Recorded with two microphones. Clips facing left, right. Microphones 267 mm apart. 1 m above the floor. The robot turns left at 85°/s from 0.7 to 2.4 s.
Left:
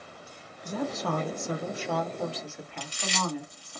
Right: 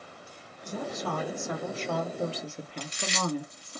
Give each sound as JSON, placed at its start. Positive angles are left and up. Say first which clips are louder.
{"t": 0.7, "sound": "a woman speaking", "louder": "left 3 dB", "azimuth_deg": 105, "distance_m": 1.0}
{"t": 2.8, "sound": "chewing", "louder": "even", "side_deg": -20, "distance_m": 1.4}